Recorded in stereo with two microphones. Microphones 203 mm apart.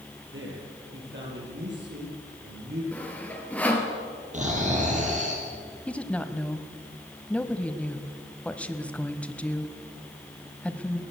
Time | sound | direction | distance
0.3 | a man speaking | 70° right (ahead or behind) | 7 m
2.9 | sawing | 5° left (ahead or behind) | 3 m
4.3 | snoring | 35° right (ahead or behind) | 5 m
5.9 | a woman speaking | 5° left (ahead or behind) | 1.2 m